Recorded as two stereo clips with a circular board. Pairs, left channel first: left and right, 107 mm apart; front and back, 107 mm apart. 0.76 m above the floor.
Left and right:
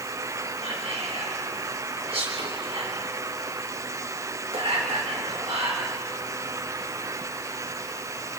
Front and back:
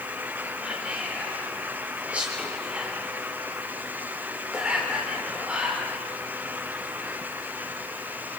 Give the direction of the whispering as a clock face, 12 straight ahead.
3 o'clock.